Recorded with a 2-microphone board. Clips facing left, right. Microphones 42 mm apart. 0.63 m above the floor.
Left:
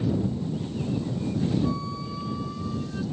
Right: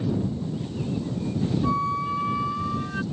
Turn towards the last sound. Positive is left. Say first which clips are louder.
# right 5 dB
turn(degrees=-50)  # may be behind; listen again after turning